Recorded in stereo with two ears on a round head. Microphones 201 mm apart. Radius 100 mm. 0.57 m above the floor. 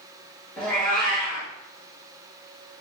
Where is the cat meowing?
5° left (ahead or behind), 1.3 m.